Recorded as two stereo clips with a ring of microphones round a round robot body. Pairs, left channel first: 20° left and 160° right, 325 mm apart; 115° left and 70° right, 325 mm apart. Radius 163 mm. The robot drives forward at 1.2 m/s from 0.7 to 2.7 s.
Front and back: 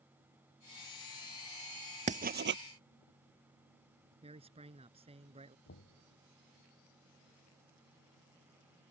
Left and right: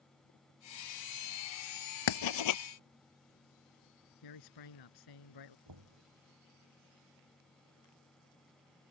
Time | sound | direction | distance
2.1 | writing | 130° left | ?
4.2 | a man speaking | 130° left | ?
5.7 | knocking | 35° right | ?